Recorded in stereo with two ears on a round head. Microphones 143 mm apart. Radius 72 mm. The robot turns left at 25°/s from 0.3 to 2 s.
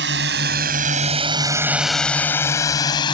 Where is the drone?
80° right; by 3.1 s 30° left (ahead or behind).